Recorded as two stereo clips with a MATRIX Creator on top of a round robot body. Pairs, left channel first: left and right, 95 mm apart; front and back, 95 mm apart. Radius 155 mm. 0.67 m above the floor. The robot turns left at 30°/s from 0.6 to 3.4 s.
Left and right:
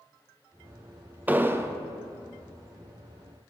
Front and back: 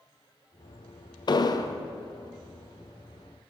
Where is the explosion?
20° right, 0.6 m; by 1.8 s 35° right, 0.6 m.